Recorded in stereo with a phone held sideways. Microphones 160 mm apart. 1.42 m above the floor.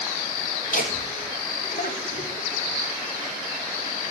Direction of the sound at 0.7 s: 60° left (ahead or behind).